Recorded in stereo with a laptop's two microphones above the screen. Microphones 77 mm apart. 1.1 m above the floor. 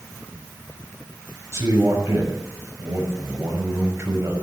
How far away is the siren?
No siren in this recording.